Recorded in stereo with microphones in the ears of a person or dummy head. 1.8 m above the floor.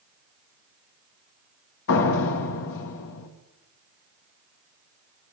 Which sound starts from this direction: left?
A door slam, at 1.9 s.